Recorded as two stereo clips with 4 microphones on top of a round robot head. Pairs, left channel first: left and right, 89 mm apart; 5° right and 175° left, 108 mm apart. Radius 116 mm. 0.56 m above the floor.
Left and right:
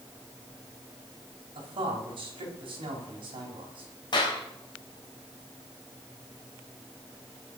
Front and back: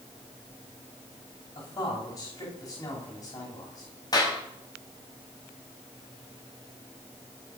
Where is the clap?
50° left, 3.5 m.